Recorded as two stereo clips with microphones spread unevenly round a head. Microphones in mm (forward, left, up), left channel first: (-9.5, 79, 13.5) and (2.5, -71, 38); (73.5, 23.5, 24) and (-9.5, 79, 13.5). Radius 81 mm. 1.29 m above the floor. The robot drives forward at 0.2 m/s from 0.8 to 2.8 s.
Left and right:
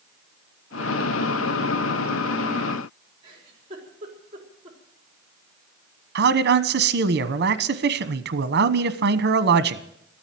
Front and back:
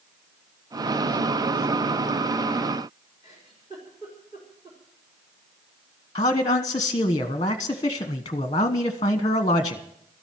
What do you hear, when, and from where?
3.2 s a giggle: 145° right, 4 m
6.2 s a man speaking: 95° right, 1.0 m